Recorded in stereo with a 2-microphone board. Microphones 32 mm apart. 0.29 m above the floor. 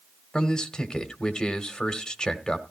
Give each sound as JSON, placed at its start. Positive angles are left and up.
{"t": 0.3, "sound": "a man speaking", "side_deg": 25, "distance_m": 1.3}